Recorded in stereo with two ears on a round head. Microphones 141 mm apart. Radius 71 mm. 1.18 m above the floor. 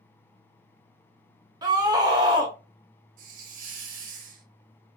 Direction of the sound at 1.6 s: 25° right (ahead or behind).